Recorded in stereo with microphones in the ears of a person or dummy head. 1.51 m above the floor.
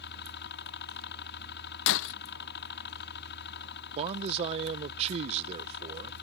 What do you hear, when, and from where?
0.0 s a helicopter: 60° left (ahead or behind)
1.9 s breaking glass: 60° left (ahead or behind)
4.0 s a man speaking: 35° right (ahead or behind)